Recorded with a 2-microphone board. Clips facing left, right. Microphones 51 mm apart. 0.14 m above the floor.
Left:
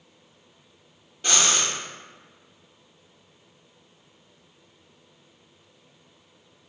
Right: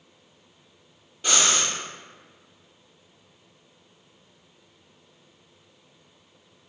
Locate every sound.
1.2 s breathing: 5° right (ahead or behind), 0.7 m